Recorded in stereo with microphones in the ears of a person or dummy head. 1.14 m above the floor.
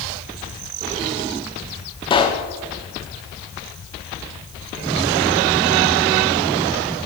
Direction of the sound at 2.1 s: 25° left (ahead or behind).